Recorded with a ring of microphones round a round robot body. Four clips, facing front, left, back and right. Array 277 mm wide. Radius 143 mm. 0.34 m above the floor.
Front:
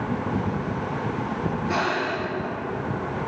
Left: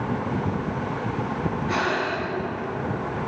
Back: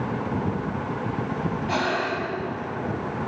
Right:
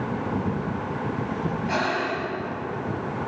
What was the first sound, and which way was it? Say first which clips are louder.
Breathing: left 1 dB, even; 145° right.